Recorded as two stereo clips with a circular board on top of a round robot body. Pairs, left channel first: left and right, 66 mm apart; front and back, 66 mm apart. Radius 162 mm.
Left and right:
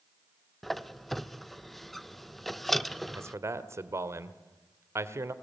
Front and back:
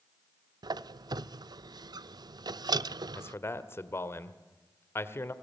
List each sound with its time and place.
0.6 s a squeak: straight behind, 0.5 m
3.1 s a man speaking: 50° right, 1.8 m